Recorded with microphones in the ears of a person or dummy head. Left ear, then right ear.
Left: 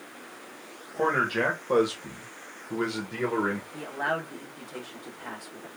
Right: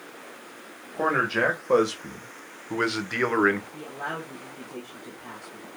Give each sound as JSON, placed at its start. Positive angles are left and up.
{"t": 0.9, "sound": "a man speaking", "side_deg": -5, "distance_m": 1.6}
{"t": 3.7, "sound": "a man speaking", "side_deg": 60, "distance_m": 1.0}